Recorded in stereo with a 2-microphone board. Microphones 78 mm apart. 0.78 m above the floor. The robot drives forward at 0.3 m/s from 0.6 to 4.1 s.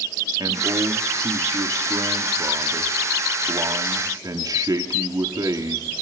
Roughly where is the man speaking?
Right.